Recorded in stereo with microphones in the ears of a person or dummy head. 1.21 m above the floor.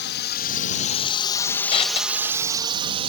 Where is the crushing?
30° left (ahead or behind).